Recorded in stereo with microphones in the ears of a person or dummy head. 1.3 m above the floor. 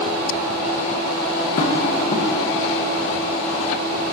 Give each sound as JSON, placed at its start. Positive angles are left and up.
{"t": 1.6, "sound": "tapping", "side_deg": 45, "distance_m": 1.3}